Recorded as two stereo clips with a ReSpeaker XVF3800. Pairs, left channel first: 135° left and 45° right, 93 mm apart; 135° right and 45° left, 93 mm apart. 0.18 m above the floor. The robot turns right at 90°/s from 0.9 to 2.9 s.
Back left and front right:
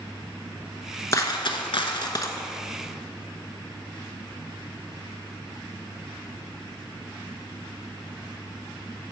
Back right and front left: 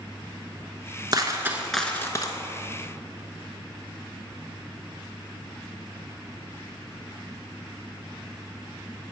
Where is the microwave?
No microwave in this recording.